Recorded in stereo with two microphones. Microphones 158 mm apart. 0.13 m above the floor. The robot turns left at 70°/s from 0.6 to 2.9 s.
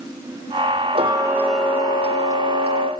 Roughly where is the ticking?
Behind right.